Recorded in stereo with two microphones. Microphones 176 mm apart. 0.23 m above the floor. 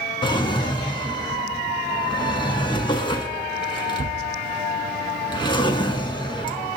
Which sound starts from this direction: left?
A drawer, at 0.2 s.